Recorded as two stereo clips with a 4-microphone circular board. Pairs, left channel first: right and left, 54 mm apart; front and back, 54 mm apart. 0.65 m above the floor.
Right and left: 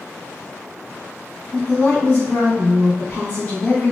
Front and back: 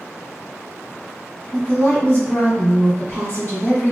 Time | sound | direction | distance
1.5 | a woman speaking | 35° right | 1.9 m